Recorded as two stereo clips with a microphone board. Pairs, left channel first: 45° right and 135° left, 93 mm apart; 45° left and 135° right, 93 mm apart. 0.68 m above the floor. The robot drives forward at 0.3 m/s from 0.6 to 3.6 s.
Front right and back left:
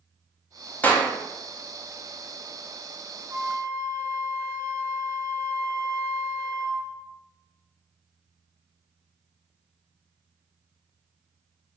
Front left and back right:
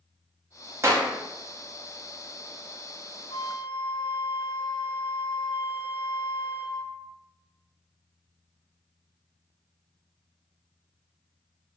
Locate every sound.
0.8 s a clap: 105° right, 0.7 m; by 1.1 s 115° right, 0.7 m
3.3 s a flute: 75° left, 0.5 m; by 6.9 s 85° left, 0.5 m